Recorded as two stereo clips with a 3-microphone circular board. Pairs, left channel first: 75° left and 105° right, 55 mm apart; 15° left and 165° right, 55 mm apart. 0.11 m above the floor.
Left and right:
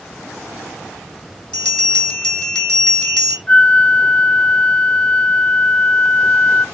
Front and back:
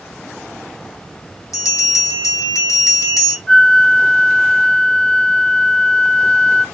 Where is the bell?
Straight ahead, 4 m.